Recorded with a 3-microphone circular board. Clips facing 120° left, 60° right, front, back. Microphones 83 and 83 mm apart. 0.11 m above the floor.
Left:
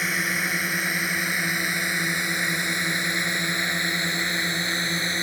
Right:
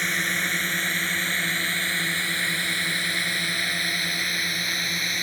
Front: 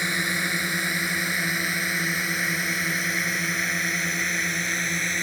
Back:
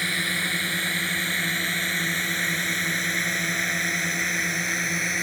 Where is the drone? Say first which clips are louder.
Left 1 dB, front 1 dB; 45° left; by 5.2 s 95° left.